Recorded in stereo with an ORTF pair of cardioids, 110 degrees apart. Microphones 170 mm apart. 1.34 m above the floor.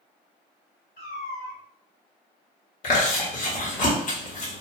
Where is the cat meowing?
65° left, 1.8 m.